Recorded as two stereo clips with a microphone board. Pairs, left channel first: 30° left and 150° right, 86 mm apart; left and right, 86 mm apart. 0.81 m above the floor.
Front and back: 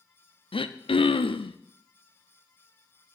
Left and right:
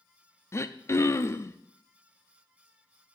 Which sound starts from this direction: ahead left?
Throat clearing, at 0.5 s.